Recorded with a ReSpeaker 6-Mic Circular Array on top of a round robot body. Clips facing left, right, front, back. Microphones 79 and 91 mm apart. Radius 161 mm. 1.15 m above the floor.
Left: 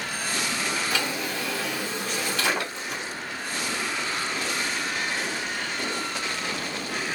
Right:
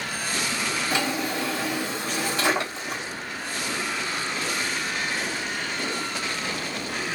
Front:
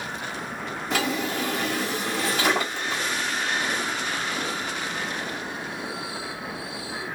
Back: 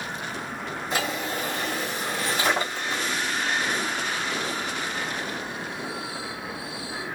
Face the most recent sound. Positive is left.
turn(degrees=-25)